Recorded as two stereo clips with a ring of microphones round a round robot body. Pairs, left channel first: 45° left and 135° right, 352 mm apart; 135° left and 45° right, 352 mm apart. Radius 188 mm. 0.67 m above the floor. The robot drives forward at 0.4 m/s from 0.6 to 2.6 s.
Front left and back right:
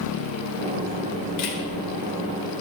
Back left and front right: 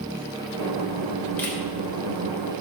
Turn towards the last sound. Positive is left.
turn(degrees=60)